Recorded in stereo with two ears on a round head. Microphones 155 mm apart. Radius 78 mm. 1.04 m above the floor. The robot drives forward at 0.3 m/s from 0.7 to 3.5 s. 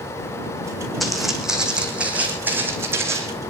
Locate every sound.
1.0 s footsteps: centre (ahead or behind), 3 m; by 3.3 s 15° right (ahead or behind), 3 m